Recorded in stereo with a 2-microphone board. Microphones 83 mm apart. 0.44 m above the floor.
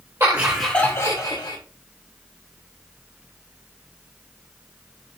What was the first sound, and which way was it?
Laughter, 30° right (ahead or behind).